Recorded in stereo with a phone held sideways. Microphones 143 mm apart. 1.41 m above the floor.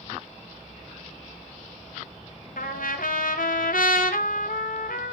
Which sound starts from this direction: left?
A trumpet, at 2.6 s.